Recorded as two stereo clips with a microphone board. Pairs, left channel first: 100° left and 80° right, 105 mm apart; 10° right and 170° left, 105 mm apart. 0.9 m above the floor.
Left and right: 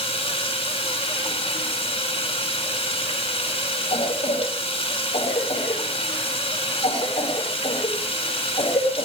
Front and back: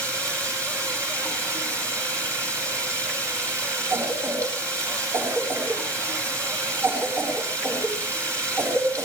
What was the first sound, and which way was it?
Running water, 110° left.